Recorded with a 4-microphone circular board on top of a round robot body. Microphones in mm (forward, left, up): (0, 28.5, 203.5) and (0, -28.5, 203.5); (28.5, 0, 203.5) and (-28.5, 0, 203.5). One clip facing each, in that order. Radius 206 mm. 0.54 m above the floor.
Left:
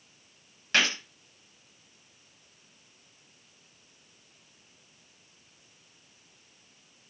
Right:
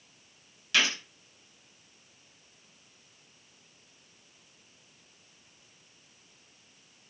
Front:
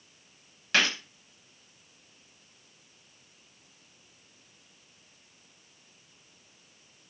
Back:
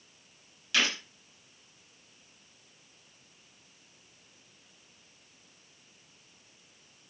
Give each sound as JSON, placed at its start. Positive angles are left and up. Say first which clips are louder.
{"t": 0.7, "sound": "a gunshot", "louder": "left 1 dB, front 3 dB", "azimuth_deg": 40, "distance_m": 4.5}